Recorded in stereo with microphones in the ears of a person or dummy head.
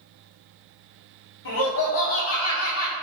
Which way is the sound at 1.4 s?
60° left (ahead or behind).